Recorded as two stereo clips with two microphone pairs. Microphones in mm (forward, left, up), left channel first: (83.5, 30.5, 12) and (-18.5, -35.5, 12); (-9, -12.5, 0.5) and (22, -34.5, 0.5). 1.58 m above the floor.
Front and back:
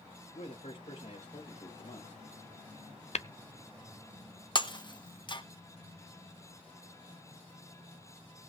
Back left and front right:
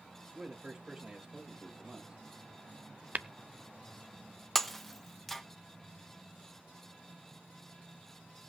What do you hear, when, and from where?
0.3 s a man speaking: 40° left, 2.5 m
3.1 s tapping: 10° left, 0.6 m
4.5 s breaking glass: 60° left, 0.9 m